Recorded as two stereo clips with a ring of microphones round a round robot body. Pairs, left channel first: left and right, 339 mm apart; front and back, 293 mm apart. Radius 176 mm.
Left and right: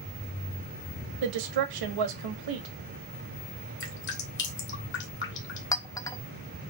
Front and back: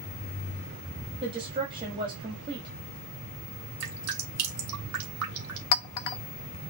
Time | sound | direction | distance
1.2 | a woman speaking | 105° right | 1.3 m
3.8 | dripping | 145° left | 1.4 m
5.7 | a clink | 10° left | 0.6 m